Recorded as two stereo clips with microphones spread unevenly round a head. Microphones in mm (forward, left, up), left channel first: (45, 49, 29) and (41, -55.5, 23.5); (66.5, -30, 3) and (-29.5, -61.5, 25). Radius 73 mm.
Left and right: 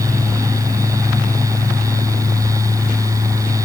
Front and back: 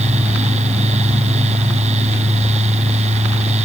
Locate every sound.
0.0 s a fan: 160° right